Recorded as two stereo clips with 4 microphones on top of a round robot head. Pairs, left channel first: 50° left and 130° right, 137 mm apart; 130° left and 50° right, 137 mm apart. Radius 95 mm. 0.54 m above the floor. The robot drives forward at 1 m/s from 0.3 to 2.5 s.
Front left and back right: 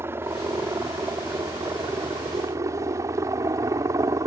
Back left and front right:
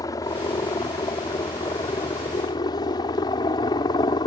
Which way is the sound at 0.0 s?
170° left.